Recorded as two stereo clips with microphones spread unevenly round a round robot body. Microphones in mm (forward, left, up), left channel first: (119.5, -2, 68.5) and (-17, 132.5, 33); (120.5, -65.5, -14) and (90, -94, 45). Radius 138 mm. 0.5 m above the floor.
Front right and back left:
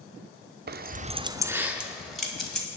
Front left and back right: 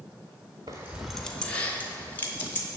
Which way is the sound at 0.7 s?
140° left.